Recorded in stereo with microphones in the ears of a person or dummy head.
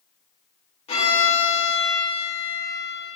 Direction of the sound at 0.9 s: 35° left (ahead or behind).